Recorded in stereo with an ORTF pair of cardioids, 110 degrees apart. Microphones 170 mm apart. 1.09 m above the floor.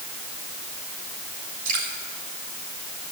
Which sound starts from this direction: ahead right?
Dripping, at 1.6 s.